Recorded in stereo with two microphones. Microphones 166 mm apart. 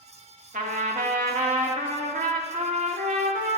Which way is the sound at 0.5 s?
55° right (ahead or behind).